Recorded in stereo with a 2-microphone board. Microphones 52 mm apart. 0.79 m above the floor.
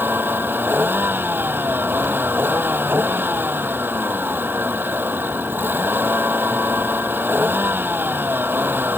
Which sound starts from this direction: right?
A vehicle, at 0.0 s.